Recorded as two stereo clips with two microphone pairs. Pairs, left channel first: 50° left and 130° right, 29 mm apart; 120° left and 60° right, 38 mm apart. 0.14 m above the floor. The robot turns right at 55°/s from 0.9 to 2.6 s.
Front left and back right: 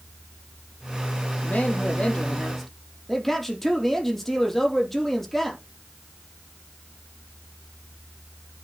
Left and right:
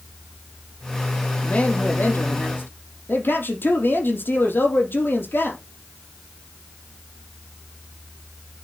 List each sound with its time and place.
1.4 s a man speaking: 70° left, 4 m; by 5.6 s 130° left, 4 m